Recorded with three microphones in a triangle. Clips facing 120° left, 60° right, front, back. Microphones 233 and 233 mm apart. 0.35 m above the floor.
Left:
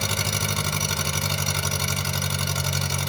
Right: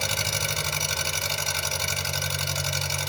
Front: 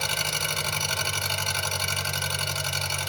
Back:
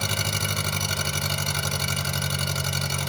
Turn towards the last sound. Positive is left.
turn(degrees=145)